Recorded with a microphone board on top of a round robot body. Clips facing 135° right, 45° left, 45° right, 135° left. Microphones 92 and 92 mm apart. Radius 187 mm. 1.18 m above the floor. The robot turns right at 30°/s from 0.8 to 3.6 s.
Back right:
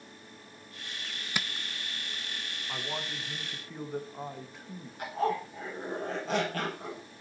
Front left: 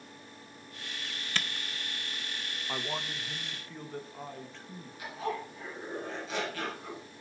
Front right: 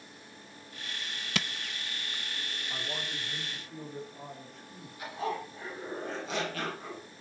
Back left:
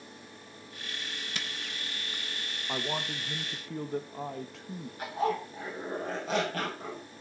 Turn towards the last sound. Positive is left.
turn(degrees=180)